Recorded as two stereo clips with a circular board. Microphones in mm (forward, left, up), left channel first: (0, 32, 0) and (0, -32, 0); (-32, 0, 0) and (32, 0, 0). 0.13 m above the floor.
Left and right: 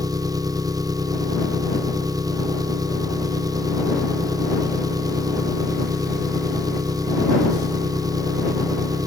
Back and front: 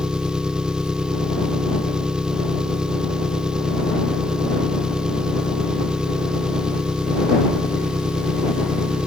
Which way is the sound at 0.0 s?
80° right.